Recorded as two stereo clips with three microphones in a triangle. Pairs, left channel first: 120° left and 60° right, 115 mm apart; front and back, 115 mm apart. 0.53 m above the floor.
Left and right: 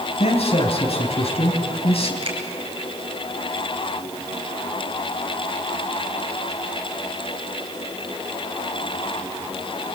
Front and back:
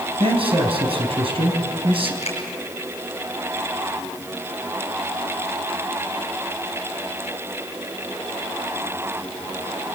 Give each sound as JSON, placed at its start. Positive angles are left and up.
{"t": 0.2, "sound": "a man speaking", "azimuth_deg": 145, "distance_m": 4.0}
{"t": 2.2, "sound": "a finger snap", "azimuth_deg": -25, "distance_m": 6.0}